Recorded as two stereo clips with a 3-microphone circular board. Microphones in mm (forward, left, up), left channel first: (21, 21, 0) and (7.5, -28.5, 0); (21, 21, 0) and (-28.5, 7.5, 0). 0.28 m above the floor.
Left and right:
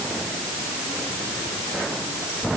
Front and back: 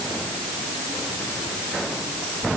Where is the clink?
I don't hear a clink.